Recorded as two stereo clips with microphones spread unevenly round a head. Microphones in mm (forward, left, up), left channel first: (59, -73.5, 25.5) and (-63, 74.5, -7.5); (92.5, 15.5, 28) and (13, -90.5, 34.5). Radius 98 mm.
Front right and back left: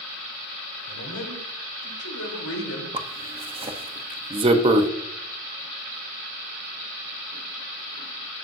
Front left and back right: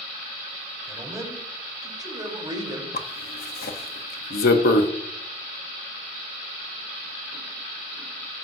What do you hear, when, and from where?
0.9 s a man speaking: 60° right, 4.5 m; by 2.8 s 70° right, 3.5 m
2.9 s a zipper: 65° left, 1.0 m